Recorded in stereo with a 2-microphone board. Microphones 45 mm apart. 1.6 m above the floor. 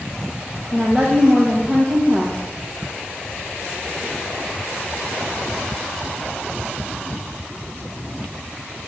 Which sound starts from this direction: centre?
A woman speaking, at 0.7 s.